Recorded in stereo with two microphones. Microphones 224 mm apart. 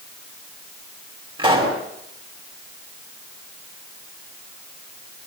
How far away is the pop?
About 6 m.